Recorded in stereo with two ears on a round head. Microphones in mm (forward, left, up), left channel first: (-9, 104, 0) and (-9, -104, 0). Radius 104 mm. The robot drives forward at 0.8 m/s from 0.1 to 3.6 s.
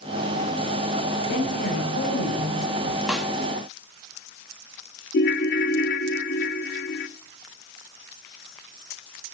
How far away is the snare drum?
About 1.0 m.